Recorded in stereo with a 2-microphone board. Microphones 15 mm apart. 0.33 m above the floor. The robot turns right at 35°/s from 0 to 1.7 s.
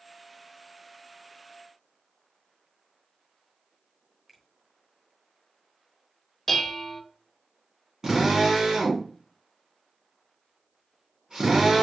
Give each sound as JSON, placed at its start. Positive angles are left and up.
{"t": 4.3, "sound": "a finger snap", "side_deg": -15, "distance_m": 1.6}
{"t": 6.5, "sound": "dishes clattering", "side_deg": 15, "distance_m": 0.7}
{"t": 8.0, "sound": "a drill", "side_deg": -50, "distance_m": 2.5}